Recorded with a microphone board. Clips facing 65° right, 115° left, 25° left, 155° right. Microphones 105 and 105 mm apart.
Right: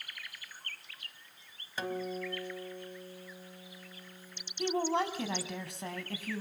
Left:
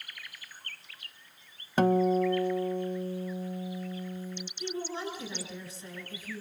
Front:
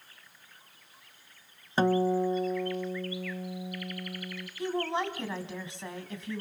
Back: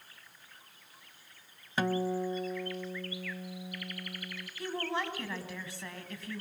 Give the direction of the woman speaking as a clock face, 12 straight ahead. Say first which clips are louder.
Right 6 dB, front 4 dB; 2 o'clock.